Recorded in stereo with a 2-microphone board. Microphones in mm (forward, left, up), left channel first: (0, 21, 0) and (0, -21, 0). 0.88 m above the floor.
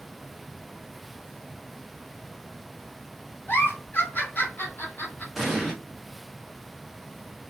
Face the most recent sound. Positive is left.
turn(degrees=-10)  # may be behind; listen again after turning